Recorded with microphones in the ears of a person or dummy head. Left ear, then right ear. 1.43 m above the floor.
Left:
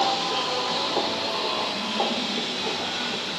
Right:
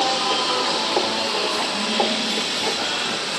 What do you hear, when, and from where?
0.0 s a machine running: 45° right (ahead or behind), 0.7 m